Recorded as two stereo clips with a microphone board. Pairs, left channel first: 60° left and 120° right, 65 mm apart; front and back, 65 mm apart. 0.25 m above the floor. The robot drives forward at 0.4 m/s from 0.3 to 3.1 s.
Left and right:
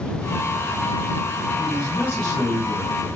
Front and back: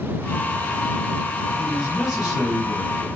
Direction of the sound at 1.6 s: 95° right.